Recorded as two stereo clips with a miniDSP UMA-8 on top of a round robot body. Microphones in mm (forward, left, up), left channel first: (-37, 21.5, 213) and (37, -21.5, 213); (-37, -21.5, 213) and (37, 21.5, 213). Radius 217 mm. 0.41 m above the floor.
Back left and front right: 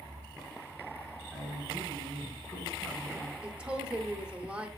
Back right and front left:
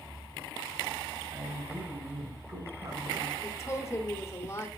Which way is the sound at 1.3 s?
60° left.